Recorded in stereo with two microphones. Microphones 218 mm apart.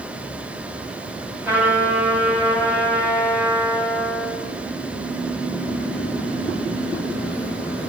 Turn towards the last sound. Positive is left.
turn(degrees=-10)  # may be behind; listen again after turning